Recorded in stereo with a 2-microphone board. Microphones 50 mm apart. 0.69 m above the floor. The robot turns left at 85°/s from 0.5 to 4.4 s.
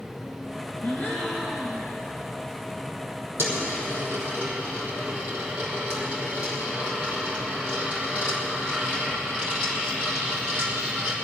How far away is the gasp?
About 2 m.